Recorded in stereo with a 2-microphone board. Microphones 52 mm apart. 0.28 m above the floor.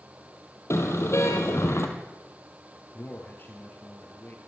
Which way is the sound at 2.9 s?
40° left (ahead or behind).